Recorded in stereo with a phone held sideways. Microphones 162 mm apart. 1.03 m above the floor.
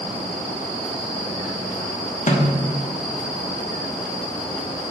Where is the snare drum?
50° left (ahead or behind), 1.0 m.